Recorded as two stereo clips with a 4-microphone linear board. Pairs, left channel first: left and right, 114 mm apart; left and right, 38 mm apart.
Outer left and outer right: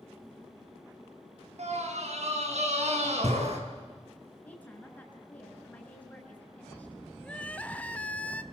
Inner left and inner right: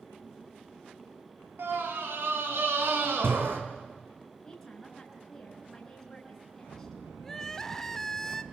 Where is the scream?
75° right (ahead or behind), 5.5 m.